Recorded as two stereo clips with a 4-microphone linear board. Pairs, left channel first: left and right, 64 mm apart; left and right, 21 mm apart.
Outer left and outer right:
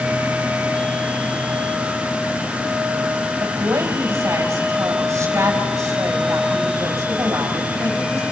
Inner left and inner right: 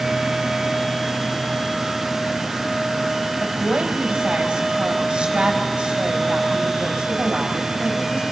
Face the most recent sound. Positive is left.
turn(degrees=-45)  # may be behind; listen again after turning